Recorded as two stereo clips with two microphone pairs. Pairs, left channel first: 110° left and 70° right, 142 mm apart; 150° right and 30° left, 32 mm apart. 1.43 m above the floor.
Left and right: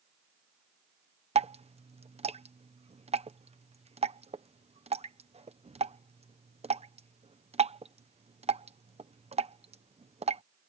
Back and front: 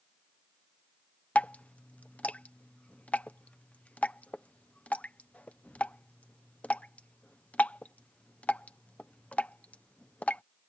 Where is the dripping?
110° right.